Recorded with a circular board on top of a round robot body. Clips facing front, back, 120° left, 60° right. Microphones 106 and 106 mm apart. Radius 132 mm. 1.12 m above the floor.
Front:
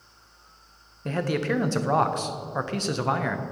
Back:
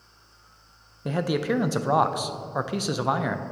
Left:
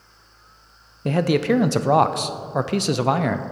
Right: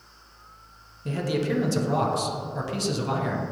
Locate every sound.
1.1 s a man speaking: 100° left, 0.5 m